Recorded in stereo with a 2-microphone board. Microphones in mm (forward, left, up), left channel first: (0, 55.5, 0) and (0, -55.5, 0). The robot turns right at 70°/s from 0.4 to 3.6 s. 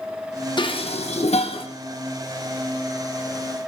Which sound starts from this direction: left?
Dishes clattering, at 0.6 s.